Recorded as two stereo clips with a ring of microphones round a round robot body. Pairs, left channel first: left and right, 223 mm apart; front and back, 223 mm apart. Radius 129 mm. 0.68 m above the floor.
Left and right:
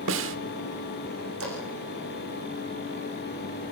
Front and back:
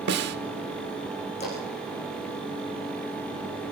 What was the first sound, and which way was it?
A snare drum, 130° right.